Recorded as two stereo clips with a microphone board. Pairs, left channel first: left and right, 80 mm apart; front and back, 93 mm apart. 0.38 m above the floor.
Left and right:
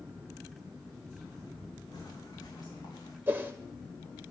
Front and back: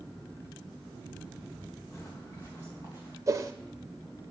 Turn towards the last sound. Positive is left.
turn(degrees=-145)